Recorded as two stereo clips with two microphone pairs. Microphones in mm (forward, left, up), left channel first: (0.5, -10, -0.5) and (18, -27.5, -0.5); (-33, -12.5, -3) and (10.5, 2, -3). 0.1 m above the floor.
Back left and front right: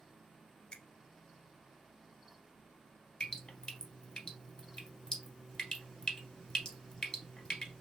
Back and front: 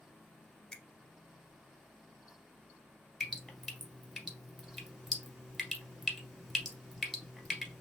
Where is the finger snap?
135° left, 1.2 m.